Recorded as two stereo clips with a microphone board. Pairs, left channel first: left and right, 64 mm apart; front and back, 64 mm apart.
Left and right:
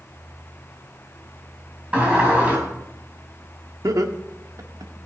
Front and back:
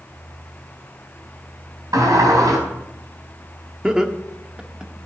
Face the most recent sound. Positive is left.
turn(degrees=-100)